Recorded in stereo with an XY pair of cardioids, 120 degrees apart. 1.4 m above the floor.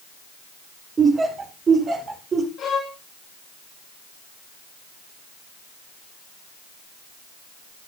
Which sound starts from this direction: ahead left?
A violin, at 2.6 s.